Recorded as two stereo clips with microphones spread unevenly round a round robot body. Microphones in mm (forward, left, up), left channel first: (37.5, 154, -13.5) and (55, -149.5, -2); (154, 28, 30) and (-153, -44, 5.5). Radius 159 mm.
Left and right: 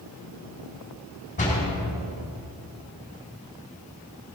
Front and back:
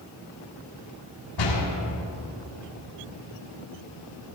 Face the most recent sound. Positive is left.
turn(degrees=25)